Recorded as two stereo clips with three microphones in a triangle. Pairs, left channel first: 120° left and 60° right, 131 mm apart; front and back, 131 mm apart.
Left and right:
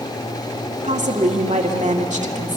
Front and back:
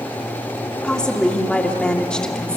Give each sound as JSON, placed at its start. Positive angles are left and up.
{"t": 0.8, "sound": "a woman speaking", "azimuth_deg": -80, "distance_m": 2.0}